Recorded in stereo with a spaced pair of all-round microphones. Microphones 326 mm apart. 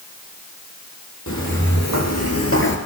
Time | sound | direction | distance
1.3 | footsteps | 65° left (ahead or behind) | 3.5 m